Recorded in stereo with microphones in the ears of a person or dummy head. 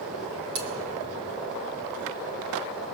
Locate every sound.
0.6 s cutlery clinking: 80° right, 3.5 m